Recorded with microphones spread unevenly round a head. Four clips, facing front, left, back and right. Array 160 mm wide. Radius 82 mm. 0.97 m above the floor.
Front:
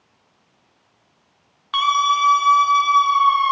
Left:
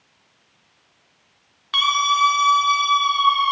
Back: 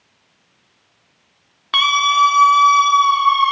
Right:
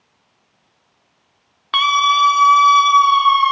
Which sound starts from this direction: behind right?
A scream, at 1.7 s.